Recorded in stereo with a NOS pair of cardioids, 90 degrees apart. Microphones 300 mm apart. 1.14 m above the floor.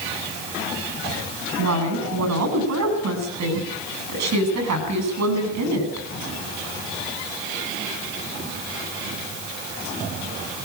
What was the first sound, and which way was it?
A woman speaking, 65° right.